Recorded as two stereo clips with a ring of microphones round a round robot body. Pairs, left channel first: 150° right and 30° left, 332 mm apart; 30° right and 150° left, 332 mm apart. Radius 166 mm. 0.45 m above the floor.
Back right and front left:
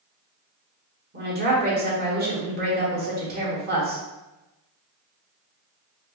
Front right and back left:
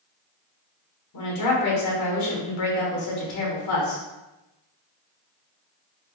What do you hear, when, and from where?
1.1 s a woman speaking: 25° right, 1.2 m